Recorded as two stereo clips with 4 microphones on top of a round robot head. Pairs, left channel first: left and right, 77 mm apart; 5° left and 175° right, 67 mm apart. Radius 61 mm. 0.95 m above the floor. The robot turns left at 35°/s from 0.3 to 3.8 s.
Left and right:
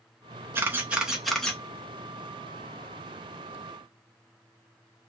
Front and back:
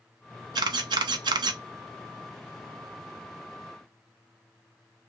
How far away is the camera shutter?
About 0.6 m.